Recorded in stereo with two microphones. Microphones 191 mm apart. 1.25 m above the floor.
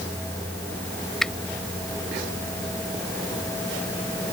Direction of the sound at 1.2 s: Centre (ahead or behind).